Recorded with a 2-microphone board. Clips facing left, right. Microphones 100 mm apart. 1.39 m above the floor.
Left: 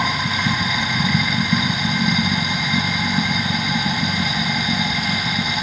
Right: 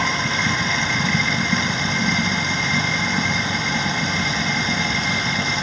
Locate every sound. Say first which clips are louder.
0.0 s running water: left 1 dB; 10° left (ahead or behind)